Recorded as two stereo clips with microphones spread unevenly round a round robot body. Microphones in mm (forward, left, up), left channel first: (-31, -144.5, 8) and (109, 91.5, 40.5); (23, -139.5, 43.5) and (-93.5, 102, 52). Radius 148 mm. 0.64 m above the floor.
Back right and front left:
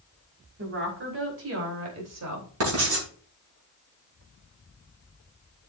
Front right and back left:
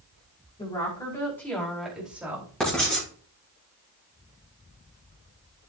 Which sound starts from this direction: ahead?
A woman speaking, at 0.6 s.